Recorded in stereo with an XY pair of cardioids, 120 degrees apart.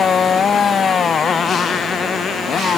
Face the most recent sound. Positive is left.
turn(degrees=40)